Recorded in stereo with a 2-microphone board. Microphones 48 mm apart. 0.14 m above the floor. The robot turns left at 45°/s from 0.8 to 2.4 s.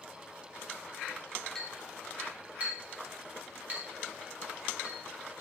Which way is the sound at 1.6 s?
10° left (ahead or behind).